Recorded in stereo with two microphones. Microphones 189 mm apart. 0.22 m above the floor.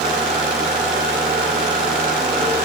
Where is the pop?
No pop in this recording.